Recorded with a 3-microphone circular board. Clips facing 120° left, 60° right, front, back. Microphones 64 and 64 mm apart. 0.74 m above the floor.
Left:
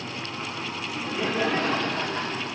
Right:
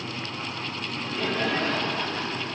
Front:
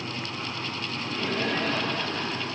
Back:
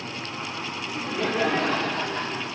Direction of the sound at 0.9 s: 170° right.